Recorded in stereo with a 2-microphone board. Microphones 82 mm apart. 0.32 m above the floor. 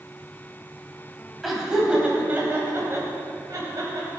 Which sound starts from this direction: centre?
Laughter, at 1.4 s.